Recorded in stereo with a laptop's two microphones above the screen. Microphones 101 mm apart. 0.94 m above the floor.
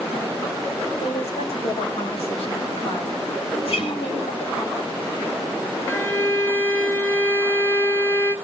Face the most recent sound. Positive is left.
turn(degrees=25)  # may be behind; listen again after turning